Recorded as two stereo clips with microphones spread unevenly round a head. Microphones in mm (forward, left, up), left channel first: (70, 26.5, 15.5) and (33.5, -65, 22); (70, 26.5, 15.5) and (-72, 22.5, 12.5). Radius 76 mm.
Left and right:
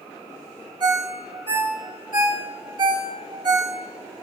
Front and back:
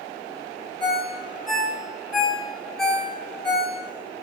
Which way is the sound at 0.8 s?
85° right.